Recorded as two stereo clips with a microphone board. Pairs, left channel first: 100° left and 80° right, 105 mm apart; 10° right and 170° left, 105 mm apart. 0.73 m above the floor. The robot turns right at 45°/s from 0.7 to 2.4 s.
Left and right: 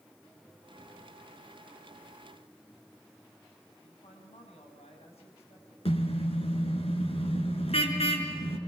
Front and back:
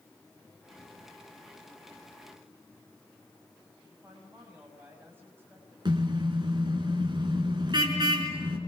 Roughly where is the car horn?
Behind left.